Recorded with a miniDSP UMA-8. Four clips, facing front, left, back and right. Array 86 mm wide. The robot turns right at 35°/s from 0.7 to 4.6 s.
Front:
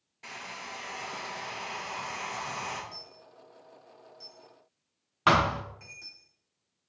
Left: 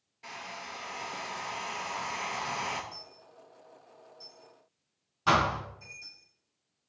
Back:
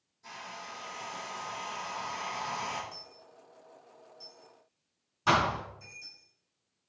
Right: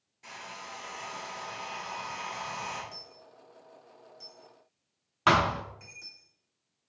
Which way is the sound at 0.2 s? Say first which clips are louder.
Left 1 dB, front 1 dB; 15° left.